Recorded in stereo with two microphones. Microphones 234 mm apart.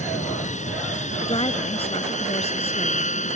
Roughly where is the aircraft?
Left.